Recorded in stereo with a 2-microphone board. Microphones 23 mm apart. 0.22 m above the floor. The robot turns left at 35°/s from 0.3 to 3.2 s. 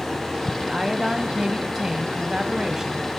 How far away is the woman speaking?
About 1.0 m.